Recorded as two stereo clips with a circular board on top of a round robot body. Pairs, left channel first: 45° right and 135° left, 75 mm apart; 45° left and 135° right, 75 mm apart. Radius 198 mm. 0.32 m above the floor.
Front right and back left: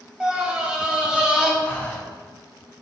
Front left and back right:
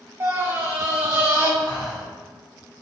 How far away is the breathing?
About 1.6 m.